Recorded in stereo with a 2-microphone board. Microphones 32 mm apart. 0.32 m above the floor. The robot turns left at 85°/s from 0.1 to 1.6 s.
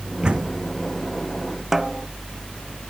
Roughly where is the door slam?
Right.